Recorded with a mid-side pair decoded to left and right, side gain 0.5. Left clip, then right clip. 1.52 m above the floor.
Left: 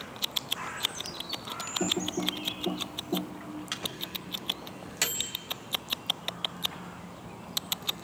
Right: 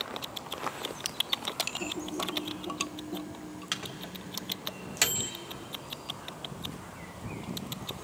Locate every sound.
1.8 s typing on a keyboard: 65° left, 1.8 m
3.7 s a microwave: 20° right, 1.9 m